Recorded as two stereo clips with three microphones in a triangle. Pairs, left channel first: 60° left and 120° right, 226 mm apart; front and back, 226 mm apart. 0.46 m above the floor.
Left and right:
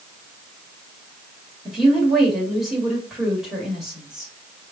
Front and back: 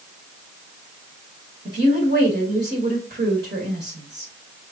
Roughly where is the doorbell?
No doorbell in this recording.